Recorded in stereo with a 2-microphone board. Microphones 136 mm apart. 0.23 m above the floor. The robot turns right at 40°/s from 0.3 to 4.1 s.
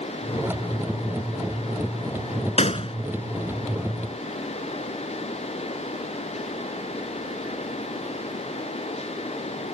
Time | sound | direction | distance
2.6 | a gunshot | 55° left (ahead or behind) | ?